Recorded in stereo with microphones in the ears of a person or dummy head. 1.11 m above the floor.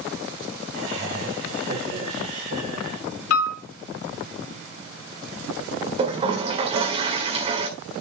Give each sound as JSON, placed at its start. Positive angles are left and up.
{"t": 0.7, "sound": "laughter", "side_deg": -40, "distance_m": 5.0}
{"t": 3.3, "sound": "a piano", "side_deg": 65, "distance_m": 1.9}
{"t": 6.0, "sound": "a toilet flushing", "side_deg": -35, "distance_m": 1.5}